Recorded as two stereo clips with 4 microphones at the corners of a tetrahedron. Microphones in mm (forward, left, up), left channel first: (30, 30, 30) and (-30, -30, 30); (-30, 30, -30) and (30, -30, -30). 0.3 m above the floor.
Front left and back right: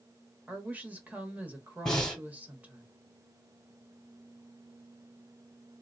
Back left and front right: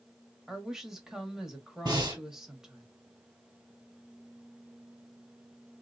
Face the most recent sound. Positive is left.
turn(degrees=-35)